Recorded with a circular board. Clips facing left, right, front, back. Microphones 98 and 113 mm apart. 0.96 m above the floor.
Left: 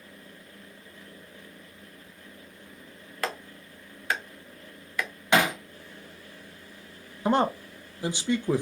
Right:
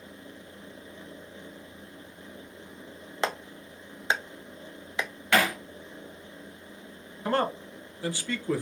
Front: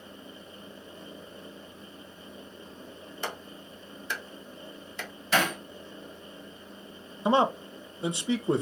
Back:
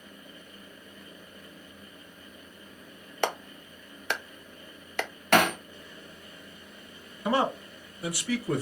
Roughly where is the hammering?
Behind.